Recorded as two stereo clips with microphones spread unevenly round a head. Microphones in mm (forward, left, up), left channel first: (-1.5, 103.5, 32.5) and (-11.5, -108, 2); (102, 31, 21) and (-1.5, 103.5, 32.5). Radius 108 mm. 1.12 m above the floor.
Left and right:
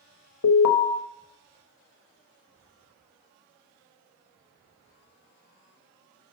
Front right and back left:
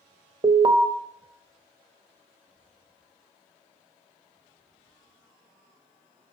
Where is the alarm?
90° left, 0.9 m.